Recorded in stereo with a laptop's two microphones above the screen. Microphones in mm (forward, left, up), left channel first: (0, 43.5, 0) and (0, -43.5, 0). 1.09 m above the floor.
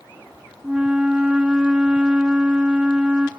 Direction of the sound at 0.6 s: 10° right (ahead or behind).